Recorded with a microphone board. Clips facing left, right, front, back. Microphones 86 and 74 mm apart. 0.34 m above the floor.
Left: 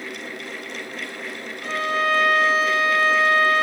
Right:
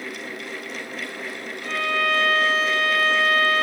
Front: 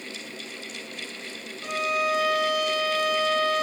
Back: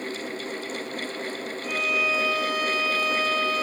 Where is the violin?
25° left, 1.7 m.